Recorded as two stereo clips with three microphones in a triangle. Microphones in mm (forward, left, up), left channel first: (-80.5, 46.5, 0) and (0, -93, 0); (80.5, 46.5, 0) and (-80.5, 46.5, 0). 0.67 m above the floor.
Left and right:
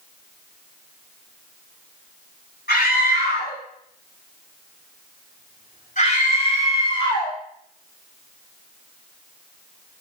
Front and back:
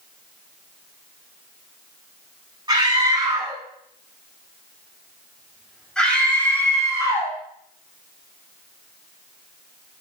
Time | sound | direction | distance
2.7 | a scream | 120° left | 7 m